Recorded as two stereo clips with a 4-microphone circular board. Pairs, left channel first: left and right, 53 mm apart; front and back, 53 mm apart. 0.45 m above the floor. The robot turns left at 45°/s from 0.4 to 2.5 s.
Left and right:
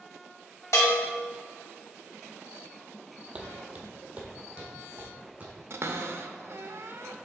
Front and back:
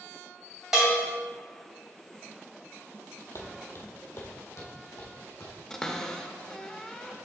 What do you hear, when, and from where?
0.7 s a bell: 100° left, 2 m; by 1.1 s 85° left, 2 m
3.4 s footsteps: 25° right, 0.9 m; by 5.5 s 30° right, 2.0 m
5.7 s a cupboard door: 75° right, 0.5 m